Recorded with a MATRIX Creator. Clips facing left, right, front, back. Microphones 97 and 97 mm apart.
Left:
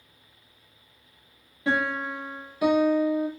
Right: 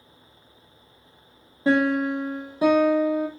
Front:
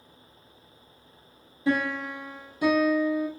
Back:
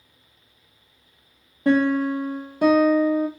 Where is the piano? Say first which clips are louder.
Right 7 dB, back 8 dB; 150° right, 1.1 m.